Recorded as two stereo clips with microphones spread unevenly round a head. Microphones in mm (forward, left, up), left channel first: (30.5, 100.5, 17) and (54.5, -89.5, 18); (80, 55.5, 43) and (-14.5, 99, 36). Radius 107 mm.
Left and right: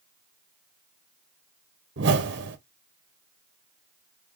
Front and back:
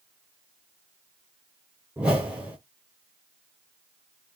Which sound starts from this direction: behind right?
A whoosh, at 2.0 s.